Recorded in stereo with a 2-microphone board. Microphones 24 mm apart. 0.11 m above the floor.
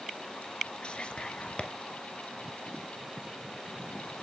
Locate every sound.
0.8 s whispering: 45° left (ahead or behind), 1.4 m